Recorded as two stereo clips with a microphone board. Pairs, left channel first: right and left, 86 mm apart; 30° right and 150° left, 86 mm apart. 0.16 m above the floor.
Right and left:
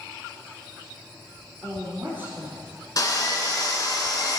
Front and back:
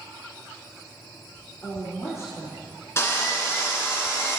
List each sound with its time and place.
1.6 s a woman speaking: 15° left, 3.5 m; by 2.7 s 30° left, 3 m
3.0 s sawing: 75° right, 1.5 m